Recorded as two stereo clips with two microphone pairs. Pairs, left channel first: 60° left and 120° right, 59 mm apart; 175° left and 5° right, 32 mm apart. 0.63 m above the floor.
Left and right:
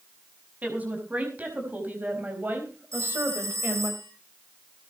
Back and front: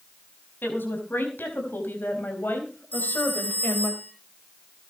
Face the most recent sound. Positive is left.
turn(degrees=-155)